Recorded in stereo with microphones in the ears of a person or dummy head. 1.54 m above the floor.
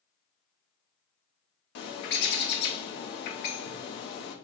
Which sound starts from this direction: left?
A bird, at 1.8 s.